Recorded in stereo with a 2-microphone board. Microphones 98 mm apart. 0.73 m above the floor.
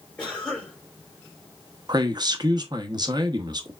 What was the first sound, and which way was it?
A cough, 10° left (ahead or behind).